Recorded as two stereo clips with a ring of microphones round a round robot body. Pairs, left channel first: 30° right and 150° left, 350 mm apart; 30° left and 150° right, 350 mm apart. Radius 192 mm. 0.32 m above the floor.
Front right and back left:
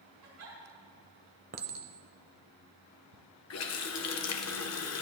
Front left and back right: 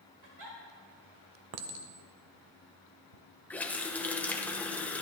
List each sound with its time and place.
0.2 s a giggle: 165° right, 5.5 m
1.5 s a clink: 150° right, 0.9 m
3.5 s a running tap: 55° right, 1.1 m